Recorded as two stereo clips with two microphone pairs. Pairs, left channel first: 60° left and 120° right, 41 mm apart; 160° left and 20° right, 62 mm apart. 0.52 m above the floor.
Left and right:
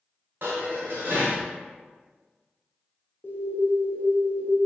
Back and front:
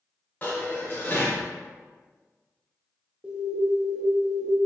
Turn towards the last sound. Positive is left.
turn(degrees=45)